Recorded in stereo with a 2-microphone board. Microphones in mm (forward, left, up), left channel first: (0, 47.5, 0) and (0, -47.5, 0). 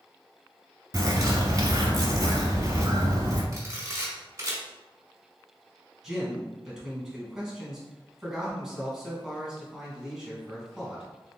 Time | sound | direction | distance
0.9 | a bird | 40° right (ahead or behind) | 1.1 m
3.5 | a camera shutter | 35° right (ahead or behind) | 1.5 m
6.0 | a man speaking | 5° right (ahead or behind) | 1.4 m